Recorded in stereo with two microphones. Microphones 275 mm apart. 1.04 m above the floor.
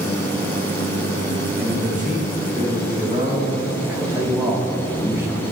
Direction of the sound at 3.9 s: 10° right (ahead or behind).